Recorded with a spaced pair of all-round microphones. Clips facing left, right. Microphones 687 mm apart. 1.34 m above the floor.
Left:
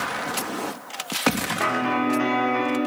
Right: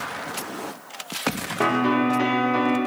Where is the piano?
65° right (ahead or behind), 0.7 m.